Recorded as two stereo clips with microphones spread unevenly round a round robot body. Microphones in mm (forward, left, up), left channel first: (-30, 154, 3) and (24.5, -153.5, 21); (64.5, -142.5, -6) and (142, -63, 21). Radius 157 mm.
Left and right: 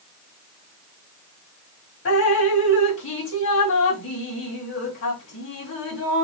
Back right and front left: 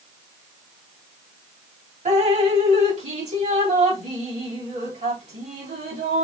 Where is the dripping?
60° left, 2 m.